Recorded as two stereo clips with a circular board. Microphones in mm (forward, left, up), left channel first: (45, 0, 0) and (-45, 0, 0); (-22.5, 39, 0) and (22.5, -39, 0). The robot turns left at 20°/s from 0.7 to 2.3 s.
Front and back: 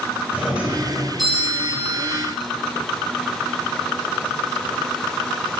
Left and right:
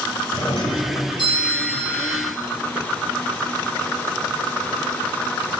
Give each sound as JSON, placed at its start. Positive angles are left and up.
{"t": 0.3, "sound": "a doorbell", "azimuth_deg": 105, "distance_m": 4.5}